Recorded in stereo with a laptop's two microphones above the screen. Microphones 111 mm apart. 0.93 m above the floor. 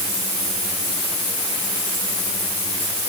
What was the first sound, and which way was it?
Only background noise.